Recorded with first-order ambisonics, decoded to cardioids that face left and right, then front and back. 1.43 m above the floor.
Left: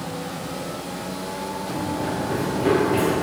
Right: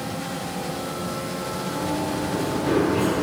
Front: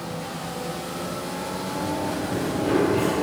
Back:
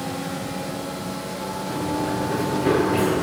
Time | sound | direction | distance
1.7 | running footsteps | 130° left | 6 m